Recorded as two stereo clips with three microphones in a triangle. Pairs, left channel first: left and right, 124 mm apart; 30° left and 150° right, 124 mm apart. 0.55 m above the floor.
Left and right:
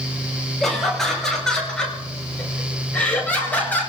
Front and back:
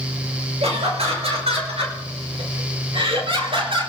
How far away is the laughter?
About 9 m.